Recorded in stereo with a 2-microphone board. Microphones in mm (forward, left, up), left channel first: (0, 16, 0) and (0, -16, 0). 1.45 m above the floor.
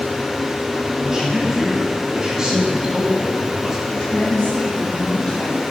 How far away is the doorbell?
I don't hear a doorbell.